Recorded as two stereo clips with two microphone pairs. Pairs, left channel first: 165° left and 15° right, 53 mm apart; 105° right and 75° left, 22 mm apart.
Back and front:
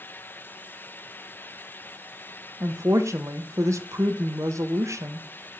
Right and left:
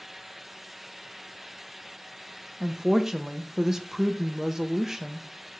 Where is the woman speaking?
5° left, 0.9 m.